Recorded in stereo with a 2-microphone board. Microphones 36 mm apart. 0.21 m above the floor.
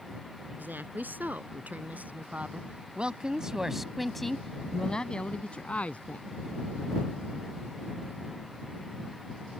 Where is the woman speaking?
65° right (ahead or behind); by 6.3 s 45° left (ahead or behind).